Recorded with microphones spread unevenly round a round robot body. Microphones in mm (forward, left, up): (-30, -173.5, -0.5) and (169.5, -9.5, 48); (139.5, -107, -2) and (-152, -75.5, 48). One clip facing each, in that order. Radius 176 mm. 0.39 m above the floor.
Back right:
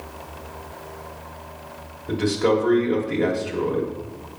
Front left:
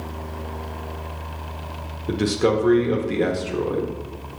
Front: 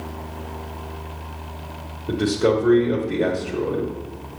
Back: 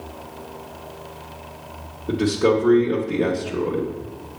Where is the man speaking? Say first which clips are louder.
Even, back 1 dB; 60° left, 0.9 m.